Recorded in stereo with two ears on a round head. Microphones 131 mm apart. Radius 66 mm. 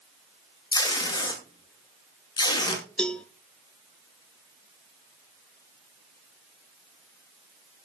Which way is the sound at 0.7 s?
30° left (ahead or behind).